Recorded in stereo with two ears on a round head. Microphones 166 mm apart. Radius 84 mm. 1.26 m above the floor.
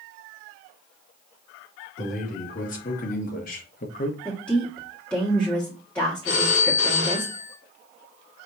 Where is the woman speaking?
5° left (ahead or behind), 1.2 m.